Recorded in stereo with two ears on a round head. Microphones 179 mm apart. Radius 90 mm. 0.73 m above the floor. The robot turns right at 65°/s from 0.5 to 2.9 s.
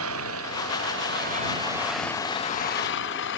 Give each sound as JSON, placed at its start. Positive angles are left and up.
{"t": 0.0, "sound": "an engine running", "azimuth_deg": -95}